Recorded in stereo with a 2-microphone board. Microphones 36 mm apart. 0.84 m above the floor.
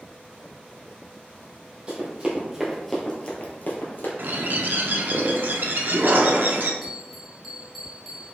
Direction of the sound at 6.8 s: Centre (ahead or behind).